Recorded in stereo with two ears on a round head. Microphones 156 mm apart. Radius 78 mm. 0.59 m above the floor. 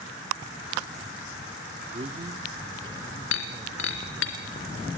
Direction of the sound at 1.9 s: 35° right (ahead or behind).